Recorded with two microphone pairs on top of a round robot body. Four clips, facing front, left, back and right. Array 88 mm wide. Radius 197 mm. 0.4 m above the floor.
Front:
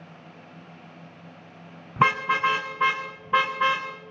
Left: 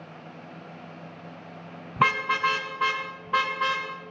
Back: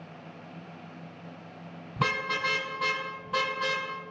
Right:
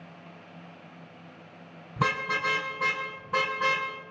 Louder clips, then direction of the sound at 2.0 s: Left 5 dB, front 8 dB; 20° left.